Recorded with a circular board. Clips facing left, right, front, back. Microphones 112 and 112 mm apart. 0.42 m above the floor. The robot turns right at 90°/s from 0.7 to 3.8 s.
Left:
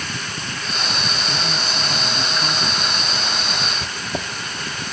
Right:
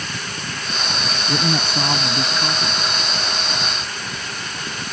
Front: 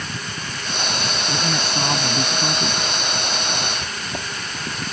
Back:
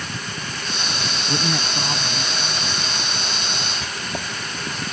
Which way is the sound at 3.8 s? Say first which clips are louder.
Left 3 dB, even; 95° left.